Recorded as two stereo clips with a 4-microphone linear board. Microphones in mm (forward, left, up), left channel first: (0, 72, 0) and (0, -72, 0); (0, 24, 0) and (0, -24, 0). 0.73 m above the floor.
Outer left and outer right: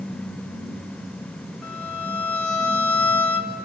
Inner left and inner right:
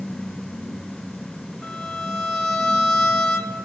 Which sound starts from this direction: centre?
A violin, at 1.6 s.